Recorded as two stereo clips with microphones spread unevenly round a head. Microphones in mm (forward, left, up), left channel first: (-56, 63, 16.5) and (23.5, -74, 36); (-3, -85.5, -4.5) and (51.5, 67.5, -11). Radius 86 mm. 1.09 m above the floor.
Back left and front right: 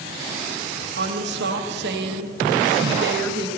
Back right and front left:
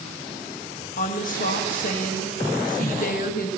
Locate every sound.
1.0 s a woman speaking: 70° right, 1.6 m